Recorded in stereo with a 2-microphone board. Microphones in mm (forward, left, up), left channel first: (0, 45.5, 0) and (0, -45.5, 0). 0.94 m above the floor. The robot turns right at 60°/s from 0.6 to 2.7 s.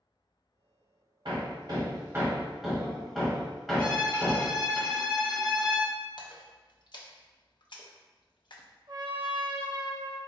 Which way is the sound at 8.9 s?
60° right (ahead or behind).